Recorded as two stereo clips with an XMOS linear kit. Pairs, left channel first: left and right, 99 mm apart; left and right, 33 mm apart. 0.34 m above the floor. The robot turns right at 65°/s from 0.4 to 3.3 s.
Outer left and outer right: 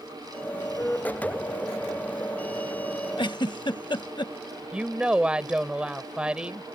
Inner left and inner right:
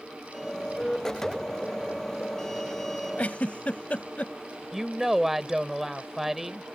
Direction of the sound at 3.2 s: 55° left (ahead or behind).